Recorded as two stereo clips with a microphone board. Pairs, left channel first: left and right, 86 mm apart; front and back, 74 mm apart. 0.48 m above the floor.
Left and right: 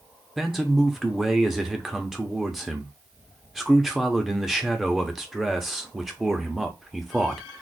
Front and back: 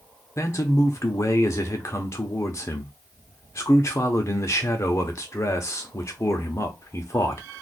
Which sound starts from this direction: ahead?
A man speaking, at 0.4 s.